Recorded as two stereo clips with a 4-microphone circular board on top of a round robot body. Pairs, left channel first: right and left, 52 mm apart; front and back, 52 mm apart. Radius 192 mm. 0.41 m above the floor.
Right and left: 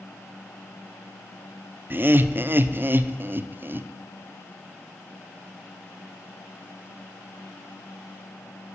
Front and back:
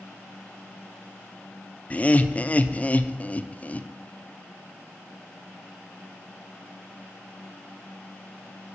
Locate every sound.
1.9 s laughter: 55° left, 1.1 m